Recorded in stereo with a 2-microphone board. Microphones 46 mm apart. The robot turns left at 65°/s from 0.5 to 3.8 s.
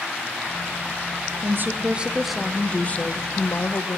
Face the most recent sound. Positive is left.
turn(degrees=90)